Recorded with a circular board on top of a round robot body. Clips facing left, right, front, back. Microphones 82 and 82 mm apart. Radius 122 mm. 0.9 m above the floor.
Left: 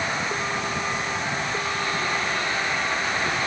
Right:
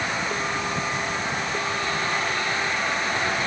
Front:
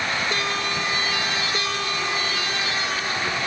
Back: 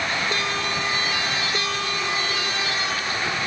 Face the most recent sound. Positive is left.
No sound to turn to.